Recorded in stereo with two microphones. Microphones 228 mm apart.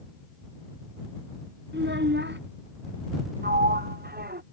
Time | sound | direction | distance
1.7 | a child speaking | 50° right (ahead or behind) | ?
3.4 | a sliding door | 45° right (ahead or behind) | ?